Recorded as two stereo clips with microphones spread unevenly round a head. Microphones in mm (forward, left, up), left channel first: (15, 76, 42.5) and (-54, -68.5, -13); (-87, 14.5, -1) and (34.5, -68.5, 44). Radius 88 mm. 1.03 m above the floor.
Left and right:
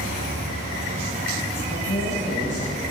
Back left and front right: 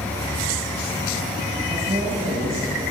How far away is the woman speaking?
About 5 m.